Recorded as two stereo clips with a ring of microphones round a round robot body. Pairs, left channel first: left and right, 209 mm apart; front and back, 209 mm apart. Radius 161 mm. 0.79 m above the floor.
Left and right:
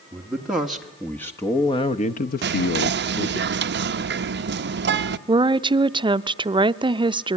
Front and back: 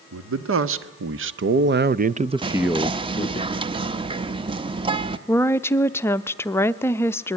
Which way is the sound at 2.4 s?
115° right.